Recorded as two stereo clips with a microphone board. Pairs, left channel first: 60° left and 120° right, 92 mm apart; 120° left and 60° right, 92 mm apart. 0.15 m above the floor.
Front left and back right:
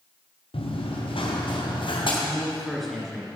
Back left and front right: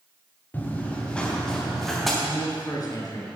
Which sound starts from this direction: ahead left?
Running footsteps, at 0.5 s.